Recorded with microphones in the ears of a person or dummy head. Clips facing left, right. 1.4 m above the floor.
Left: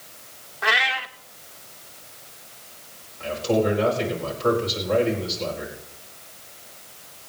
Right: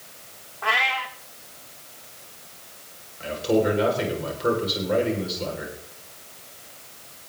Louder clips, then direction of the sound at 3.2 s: Even; 15° right (ahead or behind).